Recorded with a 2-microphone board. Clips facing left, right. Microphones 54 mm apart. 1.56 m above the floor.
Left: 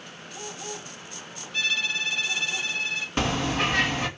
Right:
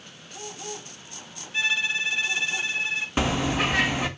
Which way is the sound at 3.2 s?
10° right (ahead or behind).